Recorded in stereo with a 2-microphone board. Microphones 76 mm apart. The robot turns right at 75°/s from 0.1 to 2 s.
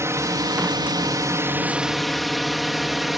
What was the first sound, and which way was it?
A drone, 40° right (ahead or behind).